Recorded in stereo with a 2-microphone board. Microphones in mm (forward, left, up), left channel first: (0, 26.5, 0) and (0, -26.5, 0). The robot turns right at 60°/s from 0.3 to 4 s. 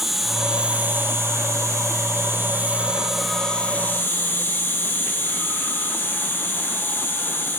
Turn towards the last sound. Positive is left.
turn(degrees=45)